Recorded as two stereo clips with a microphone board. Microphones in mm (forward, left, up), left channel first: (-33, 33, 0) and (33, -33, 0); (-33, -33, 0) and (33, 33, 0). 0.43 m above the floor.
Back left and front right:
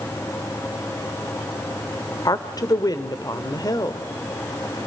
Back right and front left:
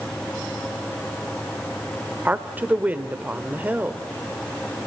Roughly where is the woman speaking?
Left.